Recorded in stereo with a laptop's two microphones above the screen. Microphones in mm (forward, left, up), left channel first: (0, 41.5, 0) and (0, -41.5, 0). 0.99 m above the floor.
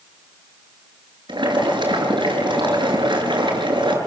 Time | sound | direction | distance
1.3 | boiling | 70° right (ahead or behind) | 6.5 m